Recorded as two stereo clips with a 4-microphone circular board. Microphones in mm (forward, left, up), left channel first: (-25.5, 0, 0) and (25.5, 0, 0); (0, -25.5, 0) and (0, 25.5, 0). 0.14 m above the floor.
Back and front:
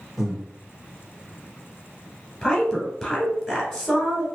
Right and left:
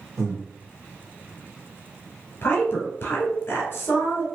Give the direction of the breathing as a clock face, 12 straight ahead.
9 o'clock.